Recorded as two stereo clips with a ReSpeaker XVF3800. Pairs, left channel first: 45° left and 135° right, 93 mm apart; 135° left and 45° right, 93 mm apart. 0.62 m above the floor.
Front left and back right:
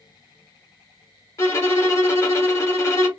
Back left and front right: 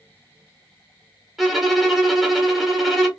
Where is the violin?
40° left, 0.9 m.